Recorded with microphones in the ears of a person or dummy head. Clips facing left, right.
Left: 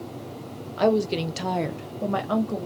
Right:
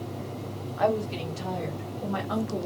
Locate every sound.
0.8 s a woman speaking: 45° left (ahead or behind), 0.7 m